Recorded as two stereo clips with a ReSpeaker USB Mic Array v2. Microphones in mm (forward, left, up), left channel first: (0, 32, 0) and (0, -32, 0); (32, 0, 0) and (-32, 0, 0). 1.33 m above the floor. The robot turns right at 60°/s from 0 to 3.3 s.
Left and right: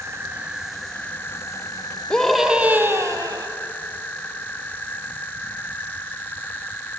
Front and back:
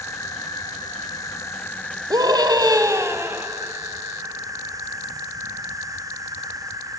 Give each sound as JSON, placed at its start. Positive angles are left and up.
{"t": 0.0, "sound": "an insect", "azimuth_deg": -45, "distance_m": 1.1}
{"t": 2.1, "sound": "a scream", "azimuth_deg": 165, "distance_m": 1.5}